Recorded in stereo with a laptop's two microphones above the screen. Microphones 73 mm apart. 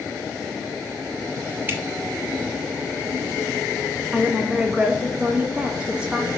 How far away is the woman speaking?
About 1.4 m.